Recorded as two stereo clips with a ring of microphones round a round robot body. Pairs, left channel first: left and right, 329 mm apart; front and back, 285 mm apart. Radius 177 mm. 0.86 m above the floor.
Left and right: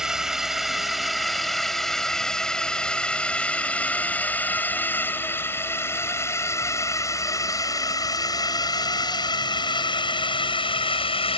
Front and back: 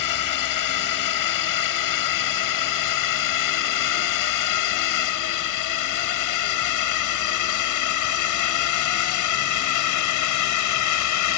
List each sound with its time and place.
0.0 s a drone: straight ahead; by 11.4 s 15° left